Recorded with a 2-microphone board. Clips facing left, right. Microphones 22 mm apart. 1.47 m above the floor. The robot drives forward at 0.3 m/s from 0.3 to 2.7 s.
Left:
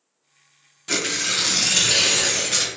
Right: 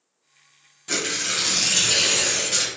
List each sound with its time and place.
0.9 s tearing paper: 15° left (ahead or behind), 0.6 m; by 2.7 s 10° left (ahead or behind), 0.9 m